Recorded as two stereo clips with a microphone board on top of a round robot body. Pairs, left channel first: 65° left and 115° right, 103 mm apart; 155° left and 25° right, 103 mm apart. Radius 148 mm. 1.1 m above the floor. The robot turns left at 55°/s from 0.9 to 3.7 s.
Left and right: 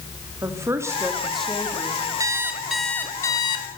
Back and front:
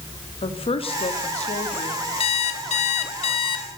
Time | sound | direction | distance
0.4 | a woman speaking | 175° right | 2.5 m
2.2 | an alarm clock | 170° right | 1.6 m